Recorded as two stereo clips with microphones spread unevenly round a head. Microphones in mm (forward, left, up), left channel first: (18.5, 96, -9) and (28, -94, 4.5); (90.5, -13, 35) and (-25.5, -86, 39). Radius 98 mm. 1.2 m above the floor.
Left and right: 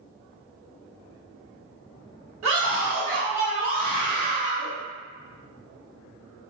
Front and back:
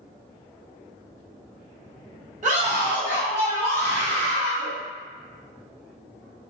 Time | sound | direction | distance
2.4 | a scream | 115° right | 0.8 m